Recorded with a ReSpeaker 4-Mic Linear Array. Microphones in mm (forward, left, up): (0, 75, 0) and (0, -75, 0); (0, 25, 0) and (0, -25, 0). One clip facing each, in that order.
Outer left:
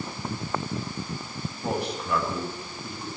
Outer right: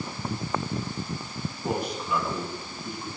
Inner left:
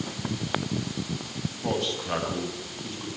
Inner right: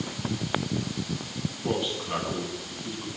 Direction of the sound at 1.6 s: 85° left.